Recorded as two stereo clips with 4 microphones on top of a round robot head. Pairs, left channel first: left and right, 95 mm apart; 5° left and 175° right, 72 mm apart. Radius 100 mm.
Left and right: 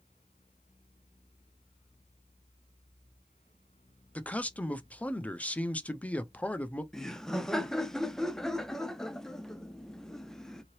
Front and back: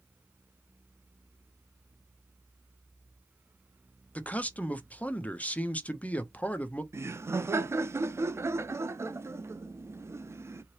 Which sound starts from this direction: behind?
Laughter, at 6.9 s.